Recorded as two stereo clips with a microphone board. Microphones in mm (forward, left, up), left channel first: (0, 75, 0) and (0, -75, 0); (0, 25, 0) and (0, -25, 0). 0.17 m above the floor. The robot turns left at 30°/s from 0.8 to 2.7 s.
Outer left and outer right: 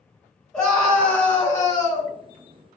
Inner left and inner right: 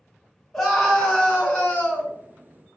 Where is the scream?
170° left, 1.7 m; by 2.1 s 130° left, 1.7 m.